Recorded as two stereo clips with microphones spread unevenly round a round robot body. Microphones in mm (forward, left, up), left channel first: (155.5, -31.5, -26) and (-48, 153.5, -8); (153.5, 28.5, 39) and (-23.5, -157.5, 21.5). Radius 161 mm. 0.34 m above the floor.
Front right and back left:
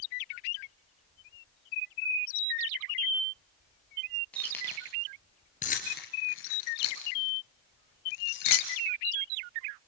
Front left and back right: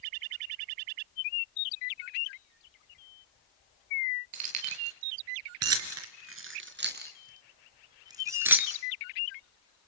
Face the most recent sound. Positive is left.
turn(degrees=-50)